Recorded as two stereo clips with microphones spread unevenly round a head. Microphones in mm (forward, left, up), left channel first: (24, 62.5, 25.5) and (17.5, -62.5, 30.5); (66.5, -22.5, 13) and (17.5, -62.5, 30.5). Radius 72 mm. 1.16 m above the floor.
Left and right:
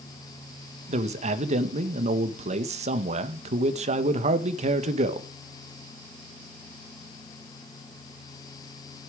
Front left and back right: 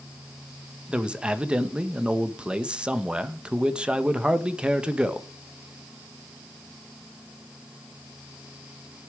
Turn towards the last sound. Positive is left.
turn(degrees=-60)